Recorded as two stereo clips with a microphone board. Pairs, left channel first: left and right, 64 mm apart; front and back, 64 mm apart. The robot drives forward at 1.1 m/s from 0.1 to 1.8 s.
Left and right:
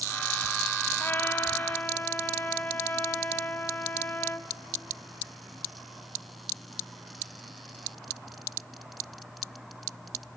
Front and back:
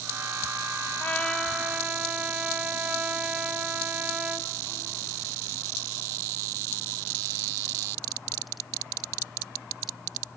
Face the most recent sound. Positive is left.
turn(degrees=125)